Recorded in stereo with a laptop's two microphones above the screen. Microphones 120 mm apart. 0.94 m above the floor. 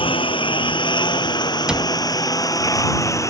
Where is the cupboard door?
5° right (ahead or behind).